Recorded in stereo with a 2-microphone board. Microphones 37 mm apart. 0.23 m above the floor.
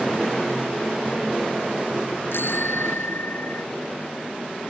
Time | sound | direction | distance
2.3 | a bicycle bell | 85° left | ?